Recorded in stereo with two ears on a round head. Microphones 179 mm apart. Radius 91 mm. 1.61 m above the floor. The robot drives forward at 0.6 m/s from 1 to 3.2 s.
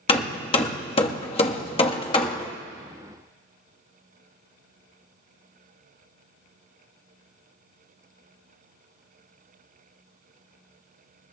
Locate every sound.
0.1 s hammering: 30° left (ahead or behind), 1.1 m; by 2.5 s 25° left (ahead or behind), 1.2 m